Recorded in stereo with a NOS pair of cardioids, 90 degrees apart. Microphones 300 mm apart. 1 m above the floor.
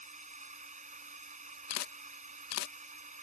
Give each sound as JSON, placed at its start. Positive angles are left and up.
{"t": 0.0, "sound": "a drone", "azimuth_deg": -25}
{"t": 1.7, "sound": "a camera shutter", "azimuth_deg": 65}